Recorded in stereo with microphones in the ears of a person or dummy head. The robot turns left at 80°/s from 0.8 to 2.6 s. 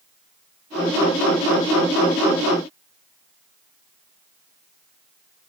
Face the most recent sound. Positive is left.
No sound to turn to.